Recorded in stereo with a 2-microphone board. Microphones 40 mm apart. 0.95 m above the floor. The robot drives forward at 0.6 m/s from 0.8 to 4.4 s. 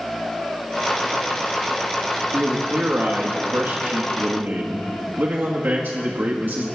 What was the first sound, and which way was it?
A man speaking, 55° right (ahead or behind).